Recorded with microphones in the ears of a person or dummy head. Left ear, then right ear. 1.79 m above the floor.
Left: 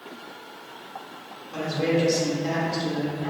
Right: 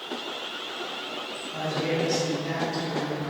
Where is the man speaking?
55° left (ahead or behind), 1.0 m.